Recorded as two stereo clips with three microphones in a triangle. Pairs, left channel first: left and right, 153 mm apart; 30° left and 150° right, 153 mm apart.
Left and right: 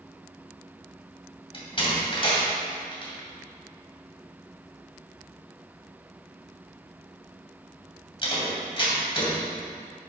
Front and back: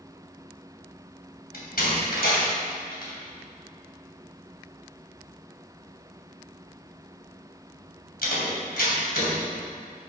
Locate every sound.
1.5 s a door slam: 35° left, 2.5 m